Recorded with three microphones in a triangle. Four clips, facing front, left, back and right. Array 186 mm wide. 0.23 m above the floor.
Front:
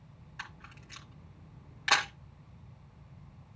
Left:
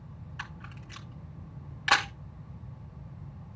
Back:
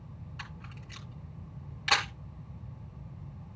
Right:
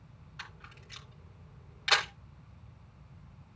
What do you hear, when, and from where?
0.4 s a camera shutter: 65° left, 2.5 m